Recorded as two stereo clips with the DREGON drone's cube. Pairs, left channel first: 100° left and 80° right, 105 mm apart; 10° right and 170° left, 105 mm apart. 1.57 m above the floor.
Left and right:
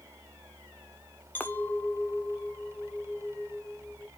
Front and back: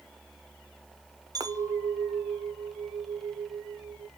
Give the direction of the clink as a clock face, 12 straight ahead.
7 o'clock.